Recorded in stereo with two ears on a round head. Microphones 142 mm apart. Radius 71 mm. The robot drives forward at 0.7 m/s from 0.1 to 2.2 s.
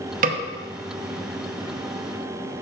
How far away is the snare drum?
About 0.8 m.